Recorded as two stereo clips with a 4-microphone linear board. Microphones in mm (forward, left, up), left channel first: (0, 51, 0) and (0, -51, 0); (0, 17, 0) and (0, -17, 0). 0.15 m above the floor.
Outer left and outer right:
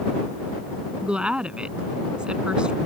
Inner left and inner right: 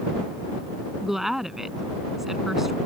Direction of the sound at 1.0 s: 10° right (ahead or behind).